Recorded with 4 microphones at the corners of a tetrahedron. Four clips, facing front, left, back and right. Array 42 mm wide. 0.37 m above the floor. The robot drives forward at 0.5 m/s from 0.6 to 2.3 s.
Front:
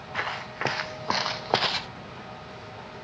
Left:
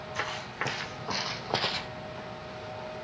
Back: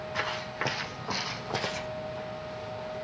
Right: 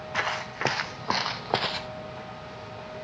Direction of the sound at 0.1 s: 70° right.